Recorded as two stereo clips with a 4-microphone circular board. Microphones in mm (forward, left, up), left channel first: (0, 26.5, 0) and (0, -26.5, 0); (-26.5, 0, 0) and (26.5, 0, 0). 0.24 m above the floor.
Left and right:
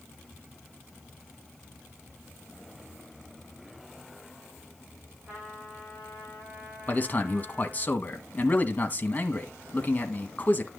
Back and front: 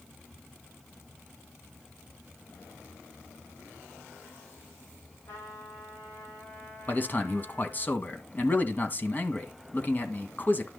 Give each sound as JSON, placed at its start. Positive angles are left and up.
{"t": 5.3, "sound": "a trumpet", "azimuth_deg": -155, "distance_m": 7.0}
{"t": 6.9, "sound": "a man speaking", "azimuth_deg": 140, "distance_m": 1.7}